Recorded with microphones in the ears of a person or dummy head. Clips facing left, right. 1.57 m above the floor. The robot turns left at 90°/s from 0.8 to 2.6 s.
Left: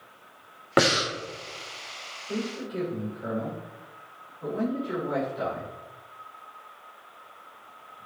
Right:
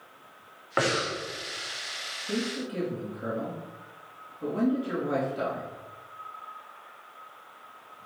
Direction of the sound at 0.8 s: 75° left.